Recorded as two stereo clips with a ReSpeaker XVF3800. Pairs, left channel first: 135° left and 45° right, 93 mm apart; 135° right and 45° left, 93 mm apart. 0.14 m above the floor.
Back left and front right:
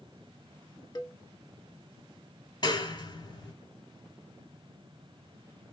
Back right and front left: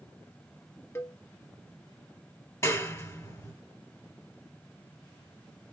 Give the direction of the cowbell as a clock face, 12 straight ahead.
6 o'clock.